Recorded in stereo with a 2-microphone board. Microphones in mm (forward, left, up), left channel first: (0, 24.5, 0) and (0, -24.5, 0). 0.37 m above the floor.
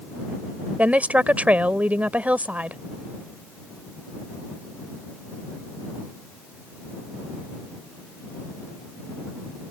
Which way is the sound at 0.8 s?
30° right (ahead or behind).